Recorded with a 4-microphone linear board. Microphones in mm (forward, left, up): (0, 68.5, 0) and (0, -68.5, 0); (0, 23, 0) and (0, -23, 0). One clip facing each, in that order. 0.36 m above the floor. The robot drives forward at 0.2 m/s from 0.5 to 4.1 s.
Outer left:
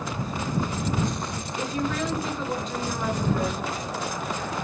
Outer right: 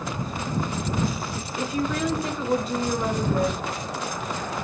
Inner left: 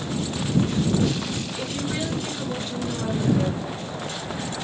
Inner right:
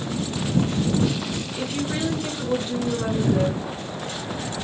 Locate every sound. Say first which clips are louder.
1.6 s a woman speaking: outer right 2 dB, inner right 3 dB; 5° right (ahead or behind), 1.7 m